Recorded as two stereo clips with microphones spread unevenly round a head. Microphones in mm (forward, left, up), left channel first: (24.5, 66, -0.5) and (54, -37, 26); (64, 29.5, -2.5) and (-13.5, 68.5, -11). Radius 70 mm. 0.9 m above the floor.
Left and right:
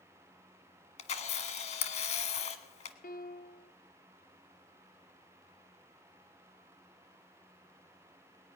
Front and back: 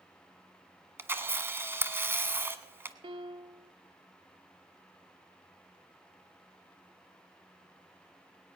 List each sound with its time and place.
1.0 s a camera shutter: 90° left, 1.2 m
3.0 s a piano: 125° left, 0.7 m